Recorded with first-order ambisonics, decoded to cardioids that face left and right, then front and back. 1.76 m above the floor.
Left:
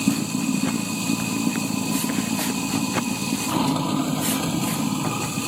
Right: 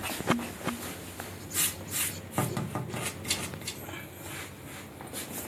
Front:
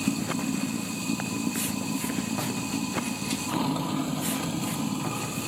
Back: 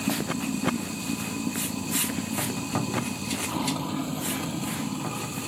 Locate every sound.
0.0 s running water: 85° left